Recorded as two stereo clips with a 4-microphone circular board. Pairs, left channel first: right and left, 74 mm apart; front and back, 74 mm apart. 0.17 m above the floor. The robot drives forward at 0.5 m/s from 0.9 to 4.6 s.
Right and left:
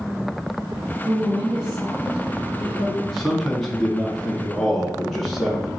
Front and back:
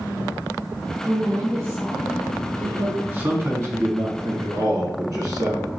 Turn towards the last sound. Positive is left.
turn(degrees=180)